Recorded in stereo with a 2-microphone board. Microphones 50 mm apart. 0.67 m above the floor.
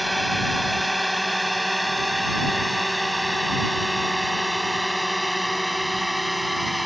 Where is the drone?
Centre (ahead or behind).